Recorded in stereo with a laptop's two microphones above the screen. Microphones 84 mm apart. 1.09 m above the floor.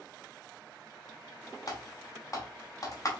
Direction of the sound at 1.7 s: 45° left (ahead or behind).